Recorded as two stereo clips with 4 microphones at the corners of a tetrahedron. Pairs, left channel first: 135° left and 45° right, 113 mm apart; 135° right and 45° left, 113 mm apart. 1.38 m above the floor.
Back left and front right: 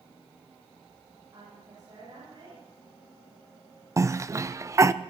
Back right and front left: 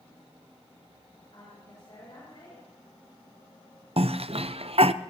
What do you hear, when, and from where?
1.3 s a woman speaking: 90° right, 6.5 m
4.0 s a cough: 15° left, 0.6 m